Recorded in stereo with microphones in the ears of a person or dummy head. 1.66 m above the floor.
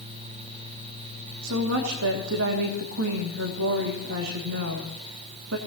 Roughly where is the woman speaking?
Right.